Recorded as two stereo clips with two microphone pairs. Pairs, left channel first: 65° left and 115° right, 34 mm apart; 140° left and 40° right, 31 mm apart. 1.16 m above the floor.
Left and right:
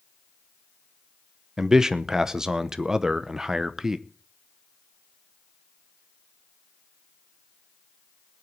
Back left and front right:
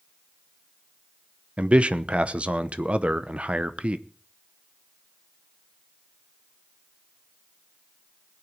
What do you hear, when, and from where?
1.6 s a man speaking: 45° right, 0.8 m